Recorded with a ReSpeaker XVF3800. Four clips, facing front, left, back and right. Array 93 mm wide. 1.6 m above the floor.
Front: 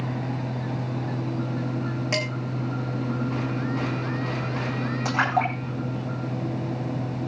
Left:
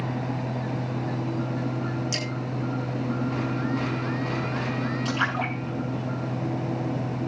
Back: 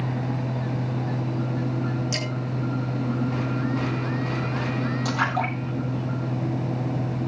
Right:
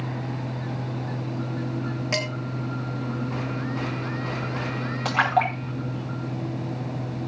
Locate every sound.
2.1 s dishes clattering: 45° right, 9.5 m
5.0 s a splash: 65° right, 10 m